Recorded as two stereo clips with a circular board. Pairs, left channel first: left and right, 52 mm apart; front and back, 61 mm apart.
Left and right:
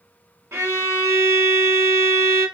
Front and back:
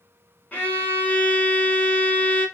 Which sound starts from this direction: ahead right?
A violin, at 0.5 s.